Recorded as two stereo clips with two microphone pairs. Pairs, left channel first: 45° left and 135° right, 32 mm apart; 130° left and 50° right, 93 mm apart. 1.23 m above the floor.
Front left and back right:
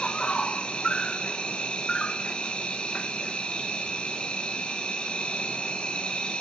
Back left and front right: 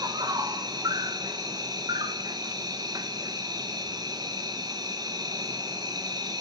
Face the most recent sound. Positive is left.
turn(degrees=-10)